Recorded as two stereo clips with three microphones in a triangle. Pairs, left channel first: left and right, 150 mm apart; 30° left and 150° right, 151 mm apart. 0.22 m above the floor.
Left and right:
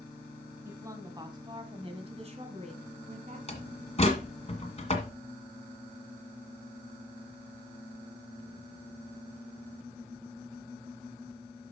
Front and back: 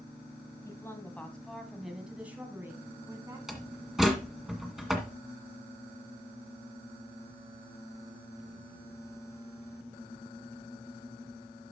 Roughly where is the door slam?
Behind left.